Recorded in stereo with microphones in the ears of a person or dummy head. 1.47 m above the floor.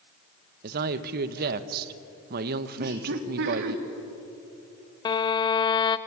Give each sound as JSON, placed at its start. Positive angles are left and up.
{"t": 0.6, "sound": "a woman speaking", "side_deg": -55, "distance_m": 1.2}
{"t": 2.8, "sound": "laughter", "side_deg": -60, "distance_m": 2.5}
{"t": 5.0, "sound": "a violin", "side_deg": 20, "distance_m": 0.8}